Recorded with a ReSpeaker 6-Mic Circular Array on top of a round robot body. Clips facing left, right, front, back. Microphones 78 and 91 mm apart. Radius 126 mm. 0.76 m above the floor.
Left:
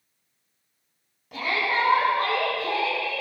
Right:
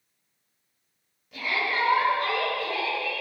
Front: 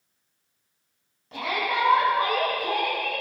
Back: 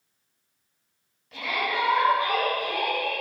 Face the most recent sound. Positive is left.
turn(degrees=55)